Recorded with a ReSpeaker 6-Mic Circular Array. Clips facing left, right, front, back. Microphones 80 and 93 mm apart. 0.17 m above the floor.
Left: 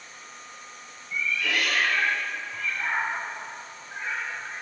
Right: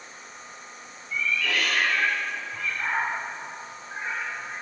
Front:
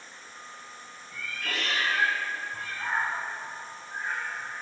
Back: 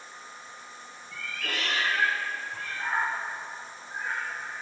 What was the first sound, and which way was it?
A cat meowing, 160° left.